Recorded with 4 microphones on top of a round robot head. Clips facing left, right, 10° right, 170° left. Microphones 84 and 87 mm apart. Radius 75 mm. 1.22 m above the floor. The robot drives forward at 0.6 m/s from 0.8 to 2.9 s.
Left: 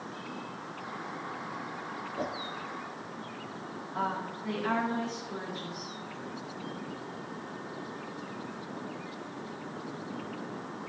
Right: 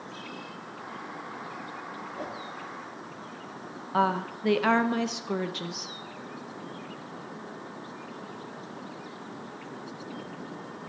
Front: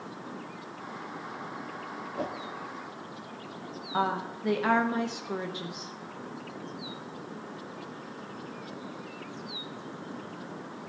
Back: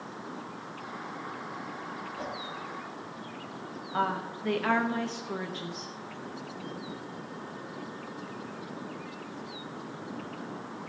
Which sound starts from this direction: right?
A woman speaking, at 3.9 s.